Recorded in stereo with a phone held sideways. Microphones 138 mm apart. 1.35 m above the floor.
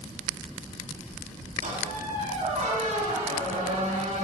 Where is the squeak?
65° right (ahead or behind), 5.5 m.